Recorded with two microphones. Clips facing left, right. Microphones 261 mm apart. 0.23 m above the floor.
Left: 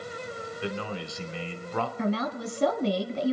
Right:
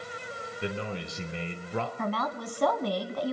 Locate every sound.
0.6 s a man speaking: 20° right (ahead or behind), 1.8 m
2.0 s a woman speaking: 15° left (ahead or behind), 1.3 m